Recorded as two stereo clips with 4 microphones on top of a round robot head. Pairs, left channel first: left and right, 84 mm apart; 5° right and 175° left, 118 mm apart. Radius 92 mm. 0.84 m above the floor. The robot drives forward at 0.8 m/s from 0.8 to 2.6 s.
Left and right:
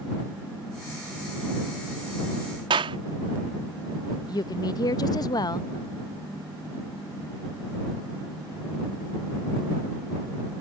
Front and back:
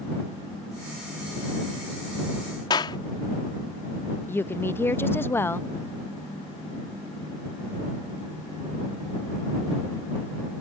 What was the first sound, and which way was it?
A clap, 60° right.